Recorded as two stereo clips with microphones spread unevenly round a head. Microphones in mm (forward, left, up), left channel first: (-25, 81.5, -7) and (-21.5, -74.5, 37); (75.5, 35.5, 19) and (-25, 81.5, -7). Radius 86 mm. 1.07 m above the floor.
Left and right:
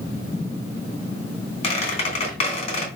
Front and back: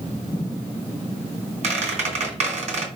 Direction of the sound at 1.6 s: 140° left.